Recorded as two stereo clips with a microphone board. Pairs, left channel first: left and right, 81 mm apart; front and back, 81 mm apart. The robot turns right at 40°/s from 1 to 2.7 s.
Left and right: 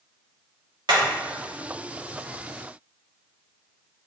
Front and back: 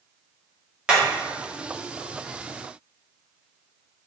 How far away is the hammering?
About 2.5 m.